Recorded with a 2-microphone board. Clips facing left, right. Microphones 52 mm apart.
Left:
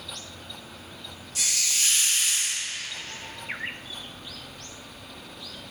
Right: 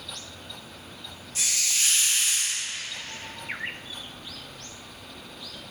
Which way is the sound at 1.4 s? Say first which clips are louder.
Even; 35° right (ahead or behind).